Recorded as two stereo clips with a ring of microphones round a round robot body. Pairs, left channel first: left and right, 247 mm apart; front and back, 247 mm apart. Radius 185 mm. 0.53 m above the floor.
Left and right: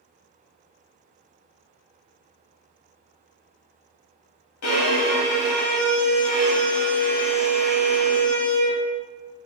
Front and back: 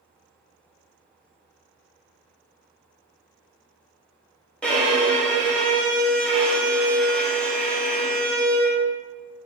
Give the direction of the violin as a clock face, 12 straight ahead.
9 o'clock.